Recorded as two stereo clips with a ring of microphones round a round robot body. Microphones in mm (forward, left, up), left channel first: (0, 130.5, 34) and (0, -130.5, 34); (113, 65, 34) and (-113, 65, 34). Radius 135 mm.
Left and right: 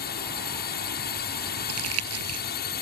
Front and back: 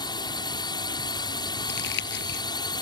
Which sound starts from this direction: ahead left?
A drone, at 0.0 s.